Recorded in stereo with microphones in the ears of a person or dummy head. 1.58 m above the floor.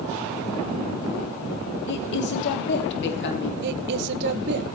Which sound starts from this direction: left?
A woman speaking, at 1.9 s.